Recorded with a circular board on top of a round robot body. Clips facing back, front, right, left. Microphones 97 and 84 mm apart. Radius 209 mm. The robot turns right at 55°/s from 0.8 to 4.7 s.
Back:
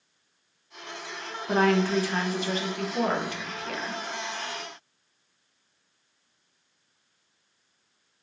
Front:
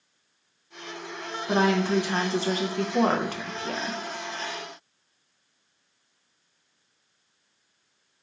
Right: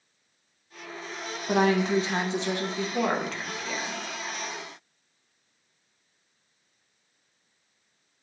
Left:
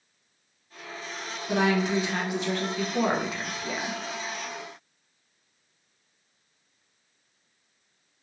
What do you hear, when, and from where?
1.5 s a woman speaking: 90° right, 0.7 m; by 4.0 s 50° left, 0.7 m